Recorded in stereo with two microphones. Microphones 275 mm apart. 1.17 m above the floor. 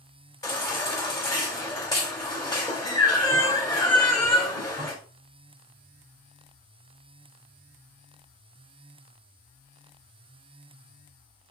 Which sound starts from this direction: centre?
A baby crying, at 0.4 s.